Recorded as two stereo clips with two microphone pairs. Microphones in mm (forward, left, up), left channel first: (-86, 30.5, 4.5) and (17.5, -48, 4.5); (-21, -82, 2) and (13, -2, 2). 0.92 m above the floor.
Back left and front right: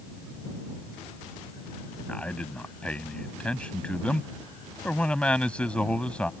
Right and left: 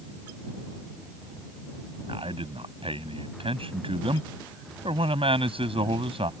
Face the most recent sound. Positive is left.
turn(degrees=60)